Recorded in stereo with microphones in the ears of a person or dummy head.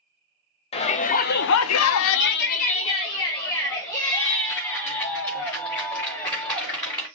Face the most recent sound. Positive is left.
turn(degrees=10)  # may be behind; listen again after turning